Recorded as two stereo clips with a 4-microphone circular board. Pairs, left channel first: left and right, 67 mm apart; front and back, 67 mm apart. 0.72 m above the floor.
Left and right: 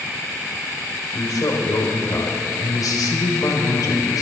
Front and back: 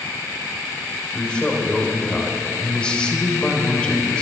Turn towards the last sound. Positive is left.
turn(degrees=75)